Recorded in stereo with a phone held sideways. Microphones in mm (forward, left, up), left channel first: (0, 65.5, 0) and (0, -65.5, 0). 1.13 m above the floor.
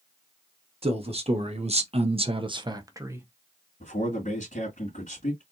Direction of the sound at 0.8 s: 45° right (ahead or behind).